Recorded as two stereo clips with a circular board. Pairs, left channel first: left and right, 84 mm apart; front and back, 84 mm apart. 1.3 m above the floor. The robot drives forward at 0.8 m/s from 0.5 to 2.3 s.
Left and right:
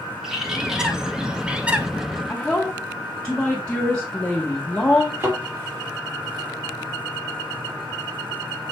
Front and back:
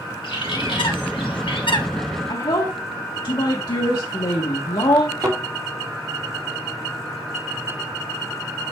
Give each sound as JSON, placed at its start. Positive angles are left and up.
{"t": 0.2, "sound": "a bird", "azimuth_deg": -5, "distance_m": 1.8}
{"t": 2.3, "sound": "a woman speaking", "azimuth_deg": 10, "distance_m": 1.4}
{"t": 5.2, "sound": "a thud", "azimuth_deg": -145, "distance_m": 3.5}